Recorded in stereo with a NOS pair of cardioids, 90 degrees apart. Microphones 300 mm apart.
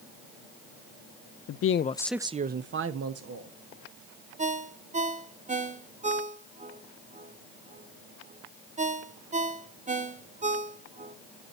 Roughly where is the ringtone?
Ahead right.